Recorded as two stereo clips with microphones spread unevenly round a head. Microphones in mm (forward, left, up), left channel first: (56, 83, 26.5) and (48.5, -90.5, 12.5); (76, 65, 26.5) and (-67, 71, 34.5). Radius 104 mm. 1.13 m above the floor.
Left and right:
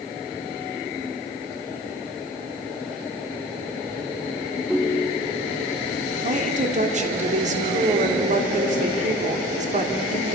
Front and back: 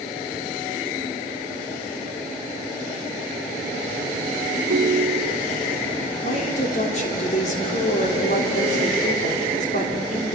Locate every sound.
4.7 s a ringtone: straight behind, 0.8 m
6.2 s a woman speaking: 50° right, 3.5 m